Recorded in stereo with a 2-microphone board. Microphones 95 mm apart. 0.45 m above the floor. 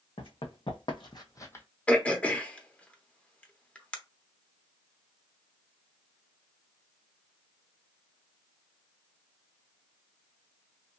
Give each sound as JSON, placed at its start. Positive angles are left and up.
{"t": 0.2, "sound": "running footsteps", "side_deg": 70, "distance_m": 1.3}
{"t": 1.9, "sound": "throat clearing", "side_deg": 15, "distance_m": 0.7}